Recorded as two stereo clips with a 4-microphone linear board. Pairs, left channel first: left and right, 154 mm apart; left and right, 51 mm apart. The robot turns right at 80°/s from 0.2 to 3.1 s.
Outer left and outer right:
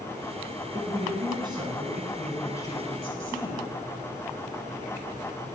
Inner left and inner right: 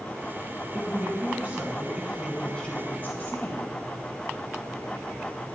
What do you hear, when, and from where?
0.7 s a woman speaking: 115° right, 1.4 m; by 3.7 s 75° left, 1.4 m